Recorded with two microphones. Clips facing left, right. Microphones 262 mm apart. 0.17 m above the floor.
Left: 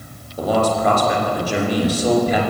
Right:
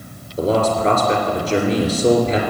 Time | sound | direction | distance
0.4 | a man speaking | 25° right (ahead or behind) | 3 m